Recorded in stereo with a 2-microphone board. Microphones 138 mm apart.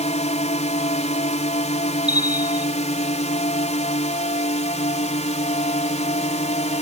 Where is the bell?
10° right (ahead or behind).